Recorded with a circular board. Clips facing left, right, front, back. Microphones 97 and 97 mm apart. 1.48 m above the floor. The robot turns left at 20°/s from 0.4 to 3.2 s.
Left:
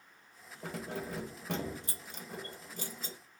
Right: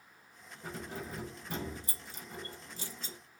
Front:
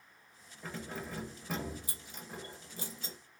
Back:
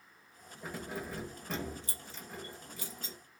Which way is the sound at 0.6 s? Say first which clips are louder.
Left 3 dB, back 2 dB; 100° left.